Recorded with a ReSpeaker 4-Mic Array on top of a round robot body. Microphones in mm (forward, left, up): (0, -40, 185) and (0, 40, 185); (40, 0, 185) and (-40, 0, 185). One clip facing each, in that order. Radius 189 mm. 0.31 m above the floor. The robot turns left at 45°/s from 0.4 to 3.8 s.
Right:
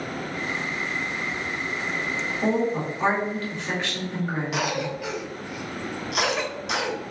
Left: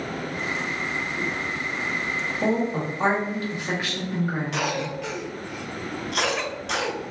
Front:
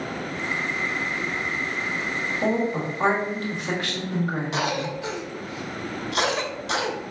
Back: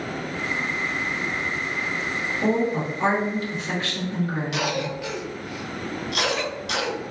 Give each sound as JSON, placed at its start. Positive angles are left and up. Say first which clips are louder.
{"t": 2.4, "sound": "a woman speaking", "louder": "even, back 2 dB", "azimuth_deg": 70, "distance_m": 1.9}
{"t": 4.5, "sound": "a cough", "louder": "even, even", "azimuth_deg": -10, "distance_m": 0.9}